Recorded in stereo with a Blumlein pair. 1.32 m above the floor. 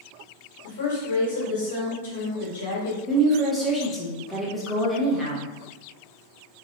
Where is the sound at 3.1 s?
Straight ahead, 1.1 m.